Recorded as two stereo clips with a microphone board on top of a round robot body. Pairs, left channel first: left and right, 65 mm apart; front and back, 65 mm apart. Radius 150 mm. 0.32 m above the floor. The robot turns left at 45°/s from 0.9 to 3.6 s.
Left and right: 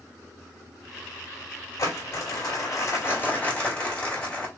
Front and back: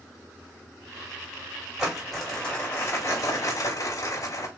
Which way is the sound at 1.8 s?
100° left.